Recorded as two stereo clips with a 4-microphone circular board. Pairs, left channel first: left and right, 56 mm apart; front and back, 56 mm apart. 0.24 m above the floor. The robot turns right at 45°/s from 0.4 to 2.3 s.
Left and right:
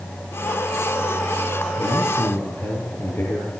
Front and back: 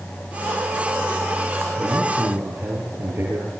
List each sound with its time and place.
1.8 s a man speaking: 110° left, 6.5 m; by 3.5 s 135° left, 6.5 m